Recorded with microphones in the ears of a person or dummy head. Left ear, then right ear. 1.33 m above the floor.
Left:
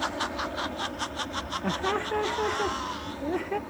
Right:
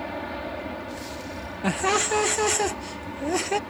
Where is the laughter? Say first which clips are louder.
Right 7 dB; 70° right (ahead or behind).